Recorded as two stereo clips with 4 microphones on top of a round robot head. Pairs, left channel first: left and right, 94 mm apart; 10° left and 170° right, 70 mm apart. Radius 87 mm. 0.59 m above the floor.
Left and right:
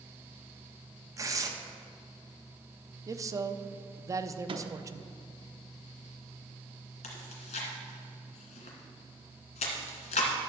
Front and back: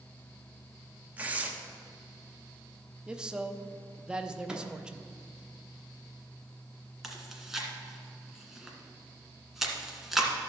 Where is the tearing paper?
115° right, 1.1 m.